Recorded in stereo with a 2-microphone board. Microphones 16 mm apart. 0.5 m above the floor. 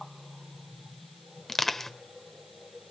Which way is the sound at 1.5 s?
25° left (ahead or behind).